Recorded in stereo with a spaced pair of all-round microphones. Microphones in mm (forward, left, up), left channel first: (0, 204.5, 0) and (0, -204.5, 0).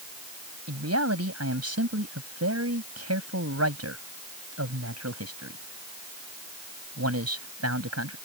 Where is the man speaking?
35° right (ahead or behind).